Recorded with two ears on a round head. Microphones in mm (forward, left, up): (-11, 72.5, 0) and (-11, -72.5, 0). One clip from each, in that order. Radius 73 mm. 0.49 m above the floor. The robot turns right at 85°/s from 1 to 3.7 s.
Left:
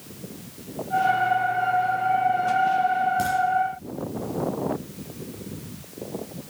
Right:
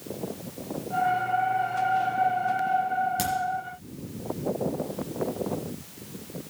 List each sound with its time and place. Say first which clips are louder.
3.2 s a crack: left 4 dB; 40° right (ahead or behind), 4 m; by 3.3 s 30° right (ahead or behind), 4 m